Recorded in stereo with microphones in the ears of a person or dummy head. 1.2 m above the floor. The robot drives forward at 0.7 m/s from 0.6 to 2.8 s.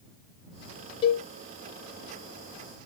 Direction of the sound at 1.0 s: 35° left (ahead or behind).